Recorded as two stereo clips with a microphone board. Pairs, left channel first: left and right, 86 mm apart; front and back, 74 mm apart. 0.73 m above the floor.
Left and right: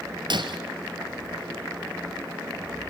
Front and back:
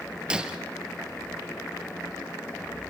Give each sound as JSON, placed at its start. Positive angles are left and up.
{"t": 0.3, "sound": "breaking glass", "azimuth_deg": -105, "distance_m": 1.5}